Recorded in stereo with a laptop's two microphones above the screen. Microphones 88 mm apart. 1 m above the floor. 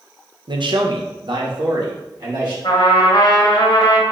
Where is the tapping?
I don't hear tapping.